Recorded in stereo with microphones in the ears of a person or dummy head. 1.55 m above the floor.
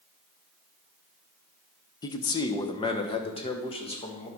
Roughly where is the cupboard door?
I don't hear a cupboard door.